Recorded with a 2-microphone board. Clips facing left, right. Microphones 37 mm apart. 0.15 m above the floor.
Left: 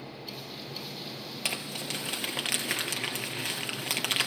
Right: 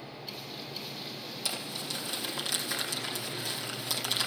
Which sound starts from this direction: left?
Crumpling, at 1.4 s.